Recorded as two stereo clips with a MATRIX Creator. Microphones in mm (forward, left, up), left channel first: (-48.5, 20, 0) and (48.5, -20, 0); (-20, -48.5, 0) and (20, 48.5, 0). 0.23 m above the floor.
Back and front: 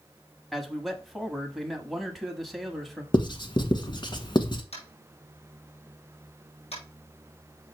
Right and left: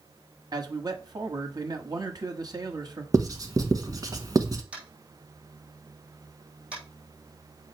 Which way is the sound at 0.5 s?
65° left.